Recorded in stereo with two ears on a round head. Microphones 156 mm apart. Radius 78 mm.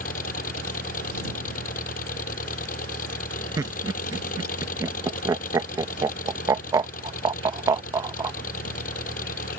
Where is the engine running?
50° left (ahead or behind).